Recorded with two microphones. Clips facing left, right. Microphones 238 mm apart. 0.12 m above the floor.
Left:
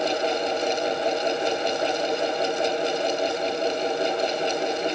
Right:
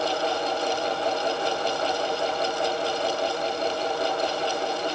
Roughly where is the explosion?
I don't hear an explosion.